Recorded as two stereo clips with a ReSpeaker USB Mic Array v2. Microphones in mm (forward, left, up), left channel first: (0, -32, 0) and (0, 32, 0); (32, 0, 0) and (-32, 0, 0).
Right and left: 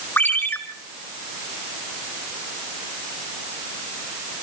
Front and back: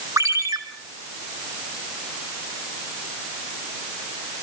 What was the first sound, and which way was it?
A ringtone, 145° right.